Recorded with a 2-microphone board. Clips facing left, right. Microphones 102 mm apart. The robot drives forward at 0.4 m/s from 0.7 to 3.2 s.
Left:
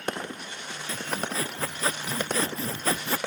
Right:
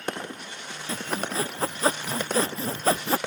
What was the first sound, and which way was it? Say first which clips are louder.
Sawing: right 2 dB; 30° right (ahead or behind).